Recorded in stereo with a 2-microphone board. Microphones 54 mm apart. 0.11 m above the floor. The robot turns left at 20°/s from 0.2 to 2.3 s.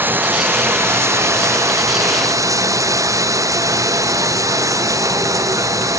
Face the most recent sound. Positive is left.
turn(degrees=-80)